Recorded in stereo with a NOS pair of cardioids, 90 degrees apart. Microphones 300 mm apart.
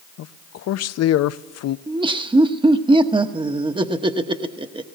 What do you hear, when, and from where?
0.2 s a man speaking: 60° left, 0.6 m
1.9 s laughter: 15° right, 1.0 m